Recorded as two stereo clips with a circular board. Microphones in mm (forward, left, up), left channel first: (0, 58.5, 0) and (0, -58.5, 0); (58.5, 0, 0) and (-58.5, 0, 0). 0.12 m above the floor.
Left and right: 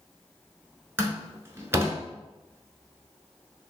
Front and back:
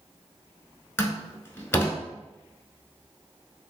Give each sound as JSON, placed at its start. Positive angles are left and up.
{"t": 1.0, "sound": "a door slam", "azimuth_deg": -45, "distance_m": 0.8}